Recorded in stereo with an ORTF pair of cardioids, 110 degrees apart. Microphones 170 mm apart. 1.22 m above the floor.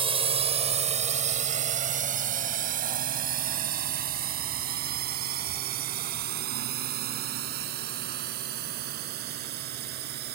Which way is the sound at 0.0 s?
30° right.